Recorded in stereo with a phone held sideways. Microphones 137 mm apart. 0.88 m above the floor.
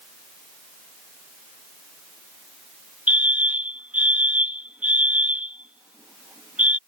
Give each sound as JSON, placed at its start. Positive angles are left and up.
{"t": 3.1, "sound": "a fire alarm", "side_deg": -10}